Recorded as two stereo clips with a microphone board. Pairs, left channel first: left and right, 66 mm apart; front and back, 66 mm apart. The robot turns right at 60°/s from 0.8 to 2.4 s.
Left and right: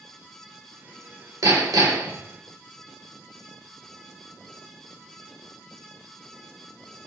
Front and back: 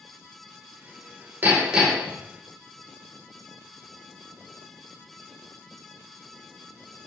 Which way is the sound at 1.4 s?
120° right.